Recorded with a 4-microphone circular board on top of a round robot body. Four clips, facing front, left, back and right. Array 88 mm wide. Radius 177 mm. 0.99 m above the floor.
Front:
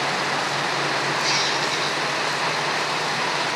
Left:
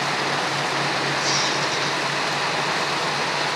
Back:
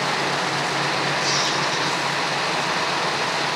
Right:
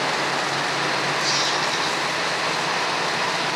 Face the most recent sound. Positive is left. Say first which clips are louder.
# even, back 1 dB
turn(degrees=20)